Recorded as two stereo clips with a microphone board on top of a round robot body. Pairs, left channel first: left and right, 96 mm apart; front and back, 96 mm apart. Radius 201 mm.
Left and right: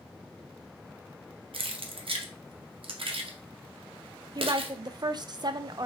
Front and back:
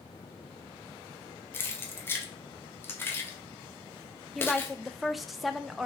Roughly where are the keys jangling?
Ahead right.